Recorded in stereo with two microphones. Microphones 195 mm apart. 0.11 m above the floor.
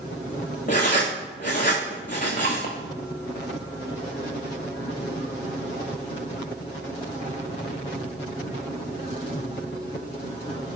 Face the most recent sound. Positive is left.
turn(degrees=45)  # may be behind; listen again after turning